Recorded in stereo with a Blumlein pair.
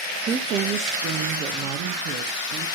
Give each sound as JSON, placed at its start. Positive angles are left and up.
{"t": 0.3, "sound": "a woman speaking", "azimuth_deg": -25, "distance_m": 0.7}